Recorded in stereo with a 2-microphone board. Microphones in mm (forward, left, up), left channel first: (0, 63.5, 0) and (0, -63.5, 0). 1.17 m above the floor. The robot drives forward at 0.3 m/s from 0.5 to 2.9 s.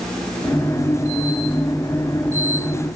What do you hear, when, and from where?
Only background noise.